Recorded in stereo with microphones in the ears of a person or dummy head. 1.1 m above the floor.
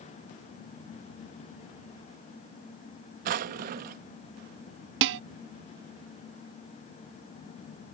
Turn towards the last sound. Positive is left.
turn(degrees=-65)  # may be behind; listen again after turning